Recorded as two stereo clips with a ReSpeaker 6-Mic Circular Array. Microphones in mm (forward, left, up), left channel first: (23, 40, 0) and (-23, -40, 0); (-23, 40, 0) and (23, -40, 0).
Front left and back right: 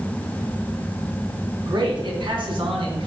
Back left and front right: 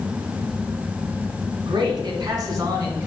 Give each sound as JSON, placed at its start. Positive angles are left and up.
{"t": 1.6, "sound": "a man speaking", "azimuth_deg": -90, "distance_m": 2.0}